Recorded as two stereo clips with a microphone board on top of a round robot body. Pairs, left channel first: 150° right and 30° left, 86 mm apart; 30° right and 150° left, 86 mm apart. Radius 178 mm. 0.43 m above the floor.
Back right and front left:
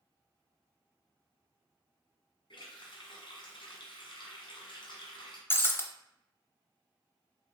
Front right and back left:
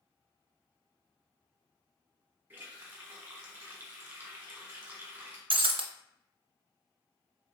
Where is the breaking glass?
145° left, 0.6 m.